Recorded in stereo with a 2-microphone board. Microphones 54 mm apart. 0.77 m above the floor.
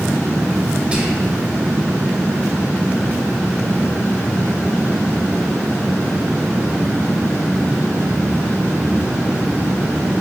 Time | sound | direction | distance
0.9 | whispering | 20° right (ahead or behind) | 0.6 m